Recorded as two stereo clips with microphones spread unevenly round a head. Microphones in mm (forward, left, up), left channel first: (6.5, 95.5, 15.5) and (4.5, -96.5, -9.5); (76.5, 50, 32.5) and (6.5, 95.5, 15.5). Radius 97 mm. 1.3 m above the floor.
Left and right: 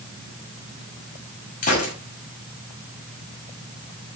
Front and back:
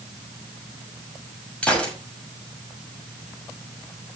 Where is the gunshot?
40° left, 6 m.